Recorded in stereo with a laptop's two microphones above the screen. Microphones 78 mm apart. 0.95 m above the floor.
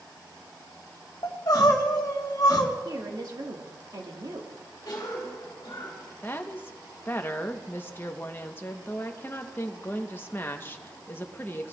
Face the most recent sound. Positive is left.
turn(degrees=25)  # may be behind; listen again after turning